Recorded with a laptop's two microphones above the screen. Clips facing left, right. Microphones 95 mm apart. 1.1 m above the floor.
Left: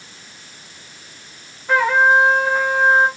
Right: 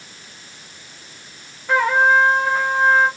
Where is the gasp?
No gasp in this recording.